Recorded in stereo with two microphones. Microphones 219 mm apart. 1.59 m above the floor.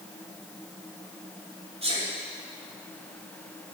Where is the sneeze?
30° right (ahead or behind), 5 m.